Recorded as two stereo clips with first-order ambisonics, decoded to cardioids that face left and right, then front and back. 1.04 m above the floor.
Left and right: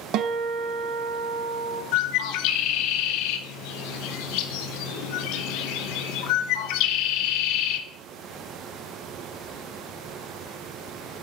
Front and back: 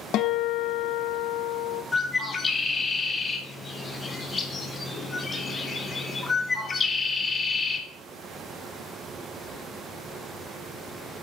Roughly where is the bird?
Left.